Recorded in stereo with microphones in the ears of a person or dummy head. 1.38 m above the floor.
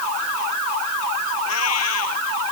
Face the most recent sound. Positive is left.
turn(degrees=85)